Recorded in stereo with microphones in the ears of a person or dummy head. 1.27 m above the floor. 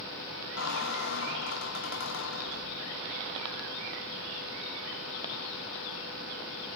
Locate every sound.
0.6 s a squeak: 75° left (ahead or behind), 1.1 m